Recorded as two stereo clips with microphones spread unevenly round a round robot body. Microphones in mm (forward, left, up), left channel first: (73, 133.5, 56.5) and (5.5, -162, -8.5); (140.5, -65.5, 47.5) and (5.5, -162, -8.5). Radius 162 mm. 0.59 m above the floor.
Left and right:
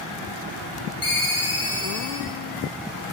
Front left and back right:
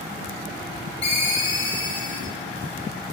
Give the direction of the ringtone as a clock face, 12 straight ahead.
11 o'clock.